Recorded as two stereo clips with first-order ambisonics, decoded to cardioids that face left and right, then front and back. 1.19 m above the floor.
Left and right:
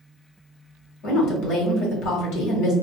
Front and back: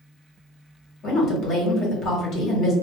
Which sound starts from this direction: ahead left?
A woman speaking, at 1.0 s.